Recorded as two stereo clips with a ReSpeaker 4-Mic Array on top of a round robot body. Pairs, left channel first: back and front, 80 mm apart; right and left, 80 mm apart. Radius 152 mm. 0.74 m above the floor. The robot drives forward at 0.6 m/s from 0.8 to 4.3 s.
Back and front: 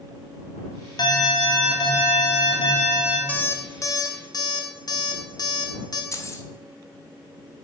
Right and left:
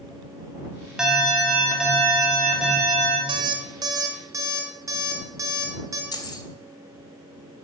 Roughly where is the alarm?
Behind.